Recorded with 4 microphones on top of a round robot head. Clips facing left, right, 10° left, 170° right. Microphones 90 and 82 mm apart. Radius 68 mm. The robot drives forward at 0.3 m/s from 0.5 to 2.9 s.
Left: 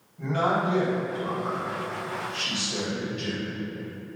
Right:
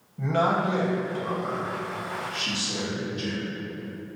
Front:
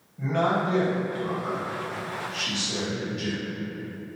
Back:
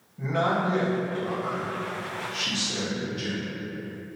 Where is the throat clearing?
No throat clearing in this recording.